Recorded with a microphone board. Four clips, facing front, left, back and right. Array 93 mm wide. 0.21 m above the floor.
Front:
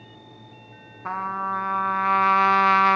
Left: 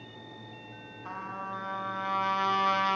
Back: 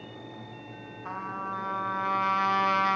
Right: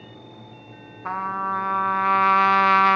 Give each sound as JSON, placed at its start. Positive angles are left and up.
{"t": 1.1, "sound": "a trumpet", "azimuth_deg": -55, "distance_m": 0.8}